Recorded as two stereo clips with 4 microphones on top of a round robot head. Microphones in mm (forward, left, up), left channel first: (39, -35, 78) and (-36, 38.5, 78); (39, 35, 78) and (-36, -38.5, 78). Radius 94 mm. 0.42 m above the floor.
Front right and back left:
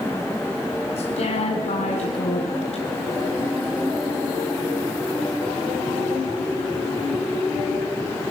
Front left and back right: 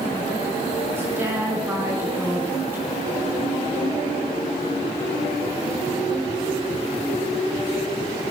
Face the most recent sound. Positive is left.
turn(degrees=-65)